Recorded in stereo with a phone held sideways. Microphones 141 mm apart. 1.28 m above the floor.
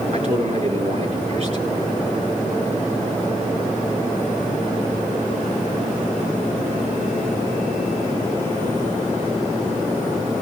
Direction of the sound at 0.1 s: 50° right (ahead or behind).